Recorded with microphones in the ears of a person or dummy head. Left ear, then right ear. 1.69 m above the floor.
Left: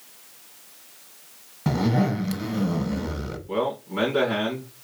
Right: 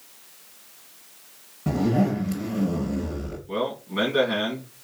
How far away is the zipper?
About 1.5 m.